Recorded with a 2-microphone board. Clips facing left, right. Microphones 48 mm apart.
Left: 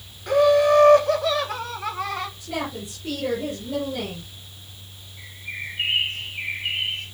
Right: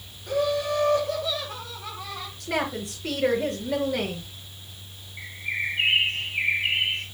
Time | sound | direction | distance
0.3 | laughter | 65° left (ahead or behind) | 3 m
2.4 | a woman speaking | 80° right | 6 m
5.2 | a bird | 55° right (ahead or behind) | 7.5 m